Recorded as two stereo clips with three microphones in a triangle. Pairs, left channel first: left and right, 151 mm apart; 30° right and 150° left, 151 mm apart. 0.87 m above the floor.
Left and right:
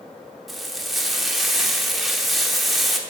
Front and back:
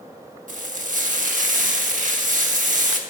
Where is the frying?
Straight behind, 1.0 m.